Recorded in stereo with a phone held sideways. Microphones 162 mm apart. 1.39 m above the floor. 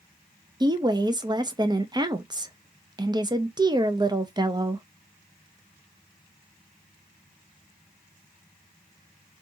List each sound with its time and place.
0.6 s a woman speaking: 25° right (ahead or behind), 0.5 m